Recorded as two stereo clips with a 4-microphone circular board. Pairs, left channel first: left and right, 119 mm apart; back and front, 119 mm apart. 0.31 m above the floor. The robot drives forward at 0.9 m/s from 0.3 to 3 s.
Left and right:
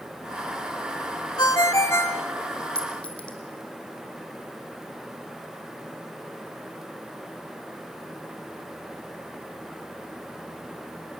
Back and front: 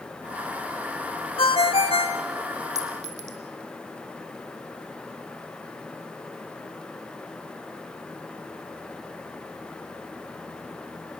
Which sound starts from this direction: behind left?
A ringtone, at 1.4 s.